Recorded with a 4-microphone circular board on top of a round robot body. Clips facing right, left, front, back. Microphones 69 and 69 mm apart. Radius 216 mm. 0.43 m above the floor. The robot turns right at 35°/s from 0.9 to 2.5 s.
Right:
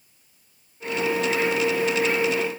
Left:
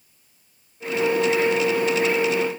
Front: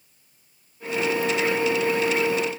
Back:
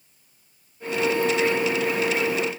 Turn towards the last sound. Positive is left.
No sound to turn to.